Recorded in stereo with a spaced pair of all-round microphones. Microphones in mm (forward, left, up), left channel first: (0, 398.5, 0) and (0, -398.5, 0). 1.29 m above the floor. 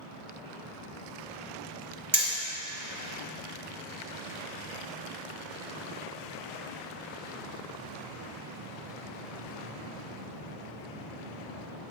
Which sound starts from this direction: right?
Hammering, at 2.1 s.